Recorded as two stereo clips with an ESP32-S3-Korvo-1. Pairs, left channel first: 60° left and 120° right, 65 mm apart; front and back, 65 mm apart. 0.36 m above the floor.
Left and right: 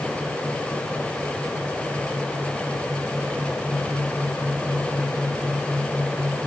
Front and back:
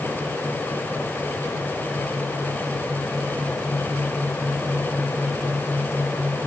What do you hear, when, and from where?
Only background noise.